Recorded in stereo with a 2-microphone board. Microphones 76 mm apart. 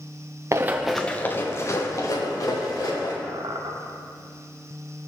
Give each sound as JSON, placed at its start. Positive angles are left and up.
{"t": 0.5, "sound": "running footsteps", "side_deg": -40, "distance_m": 0.6}
{"t": 3.2, "sound": "a squeak", "side_deg": -80, "distance_m": 1.1}